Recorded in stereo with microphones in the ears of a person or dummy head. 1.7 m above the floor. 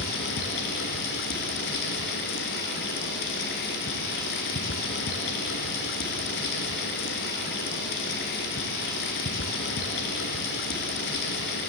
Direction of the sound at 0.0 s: 60° left (ahead or behind).